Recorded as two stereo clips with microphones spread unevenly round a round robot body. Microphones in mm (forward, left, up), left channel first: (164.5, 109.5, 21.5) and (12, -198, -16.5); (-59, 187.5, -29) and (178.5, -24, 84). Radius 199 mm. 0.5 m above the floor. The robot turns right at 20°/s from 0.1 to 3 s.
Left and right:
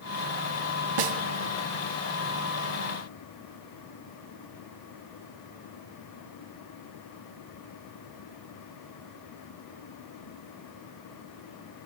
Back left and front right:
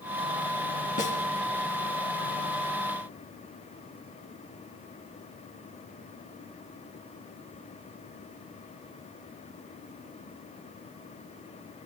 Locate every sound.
1.0 s a snare drum: 150° right, 1.4 m; by 1.2 s 145° right, 1.4 m